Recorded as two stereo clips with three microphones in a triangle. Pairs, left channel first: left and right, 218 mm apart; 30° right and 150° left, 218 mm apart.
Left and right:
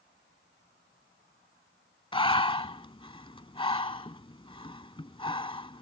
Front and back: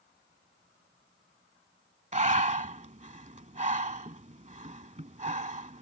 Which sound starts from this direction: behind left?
Breathing, at 2.1 s.